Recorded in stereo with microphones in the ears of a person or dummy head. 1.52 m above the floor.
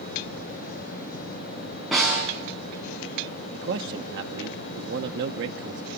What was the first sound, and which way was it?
A snare drum, 5° left (ahead or behind).